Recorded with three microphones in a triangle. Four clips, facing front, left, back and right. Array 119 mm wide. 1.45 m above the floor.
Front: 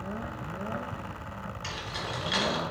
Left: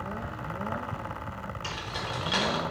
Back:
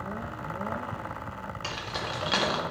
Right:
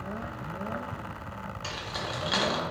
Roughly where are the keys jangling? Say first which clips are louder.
Right 1 dB, back 3 dB; behind.